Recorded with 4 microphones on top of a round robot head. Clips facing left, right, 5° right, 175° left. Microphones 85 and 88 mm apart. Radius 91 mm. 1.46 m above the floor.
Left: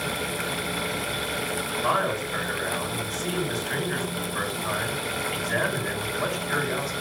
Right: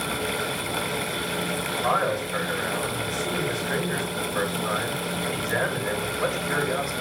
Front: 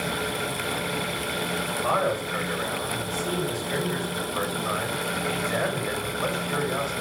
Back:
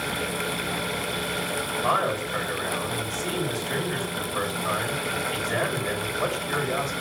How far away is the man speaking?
About 5.5 m.